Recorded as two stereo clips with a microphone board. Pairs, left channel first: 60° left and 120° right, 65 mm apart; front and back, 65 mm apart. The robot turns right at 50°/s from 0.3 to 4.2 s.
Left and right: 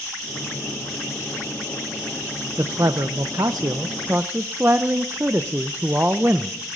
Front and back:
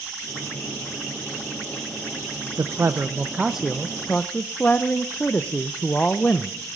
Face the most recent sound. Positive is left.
turn(degrees=-65)